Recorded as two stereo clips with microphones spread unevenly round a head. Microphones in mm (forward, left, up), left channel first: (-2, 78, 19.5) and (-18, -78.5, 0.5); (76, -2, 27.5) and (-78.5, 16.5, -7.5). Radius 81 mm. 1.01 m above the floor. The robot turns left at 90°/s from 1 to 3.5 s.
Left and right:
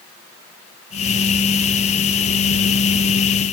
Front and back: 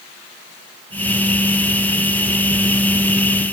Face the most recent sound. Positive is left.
No sound to turn to.